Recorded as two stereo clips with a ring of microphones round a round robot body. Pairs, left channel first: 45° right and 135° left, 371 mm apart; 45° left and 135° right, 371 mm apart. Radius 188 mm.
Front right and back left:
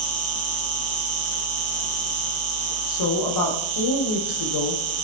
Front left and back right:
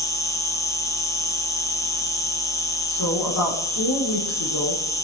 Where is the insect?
125° left, 3 m.